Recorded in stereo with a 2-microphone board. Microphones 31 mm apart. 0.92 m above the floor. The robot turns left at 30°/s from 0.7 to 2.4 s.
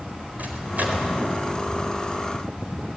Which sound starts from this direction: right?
A microwave, at 0.4 s.